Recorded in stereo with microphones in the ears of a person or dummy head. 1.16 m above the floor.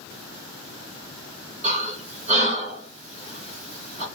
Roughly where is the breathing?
Right.